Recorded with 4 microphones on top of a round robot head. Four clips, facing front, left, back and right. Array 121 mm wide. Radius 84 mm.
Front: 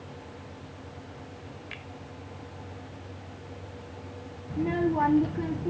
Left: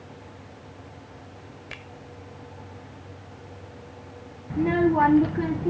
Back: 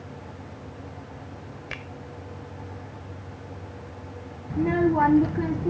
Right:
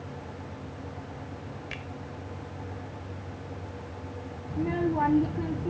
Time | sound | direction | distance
1.7 | a finger snap | 170° left | ?
4.5 | a child speaking | 120° left | ?